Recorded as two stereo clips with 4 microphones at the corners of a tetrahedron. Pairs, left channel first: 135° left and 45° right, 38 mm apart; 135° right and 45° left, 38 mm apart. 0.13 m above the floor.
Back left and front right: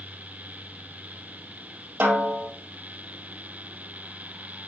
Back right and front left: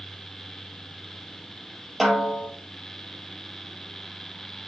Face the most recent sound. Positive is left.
turn(degrees=-45)